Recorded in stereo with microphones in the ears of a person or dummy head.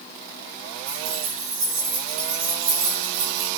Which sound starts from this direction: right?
Keys jangling, at 0.9 s.